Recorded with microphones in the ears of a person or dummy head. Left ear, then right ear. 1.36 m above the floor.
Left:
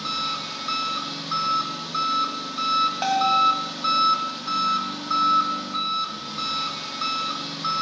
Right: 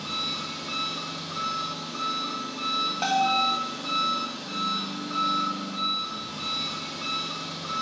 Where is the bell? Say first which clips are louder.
Left 1 dB; 10° left (ahead or behind), 1.3 m.